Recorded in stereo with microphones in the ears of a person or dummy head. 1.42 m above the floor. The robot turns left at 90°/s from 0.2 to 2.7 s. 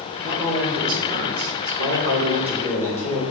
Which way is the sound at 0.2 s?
40° left.